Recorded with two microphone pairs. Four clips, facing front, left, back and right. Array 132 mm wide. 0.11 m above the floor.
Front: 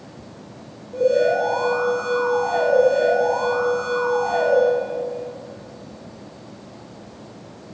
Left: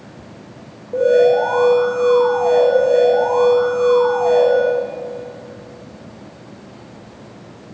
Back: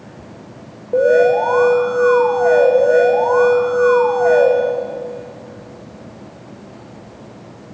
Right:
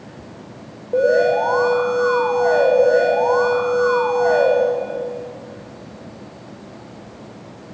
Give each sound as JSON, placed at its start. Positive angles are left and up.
{"t": 0.9, "sound": "an alarm", "azimuth_deg": -155, "distance_m": 8.5}